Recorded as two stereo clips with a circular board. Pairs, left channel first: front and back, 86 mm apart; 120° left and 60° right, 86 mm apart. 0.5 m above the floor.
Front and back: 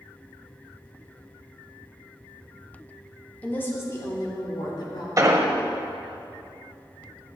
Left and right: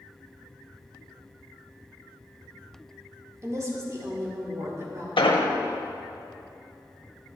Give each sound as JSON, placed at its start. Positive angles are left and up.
{"t": 3.4, "sound": "a woman speaking", "azimuth_deg": -60, "distance_m": 1.0}
{"t": 5.2, "sound": "an explosion", "azimuth_deg": 125, "distance_m": 0.6}